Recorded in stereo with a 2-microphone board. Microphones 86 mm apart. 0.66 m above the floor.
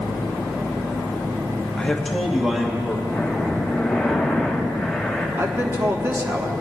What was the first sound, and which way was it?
A man speaking, 10° left (ahead or behind).